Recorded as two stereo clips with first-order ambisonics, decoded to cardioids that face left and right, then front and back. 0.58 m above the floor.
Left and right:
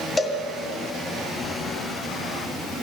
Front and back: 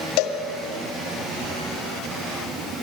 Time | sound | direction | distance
0.2 | a cowbell | 10° left | 2.0 m